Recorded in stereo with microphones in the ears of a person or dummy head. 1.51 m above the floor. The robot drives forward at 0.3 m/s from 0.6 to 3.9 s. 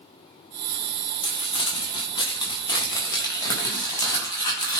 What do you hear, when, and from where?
1.2 s crumpling: 35° left (ahead or behind), 1.7 m; by 4.8 s 25° left (ahead or behind), 2.5 m